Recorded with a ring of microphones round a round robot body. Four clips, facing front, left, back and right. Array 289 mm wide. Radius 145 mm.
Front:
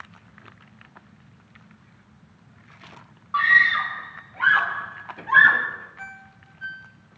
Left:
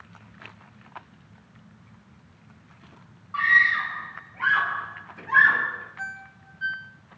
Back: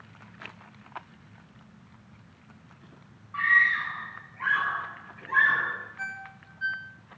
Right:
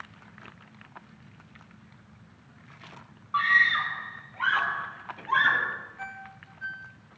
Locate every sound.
3.3 s a scream: 5° right, 5.5 m; by 5.7 s 10° right, 7 m
6.0 s a ringtone: 100° left, 1.6 m